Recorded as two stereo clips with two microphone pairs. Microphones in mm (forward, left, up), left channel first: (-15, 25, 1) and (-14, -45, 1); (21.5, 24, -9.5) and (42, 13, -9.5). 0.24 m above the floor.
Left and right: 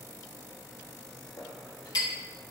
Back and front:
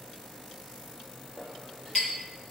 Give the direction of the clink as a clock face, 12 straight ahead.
9 o'clock.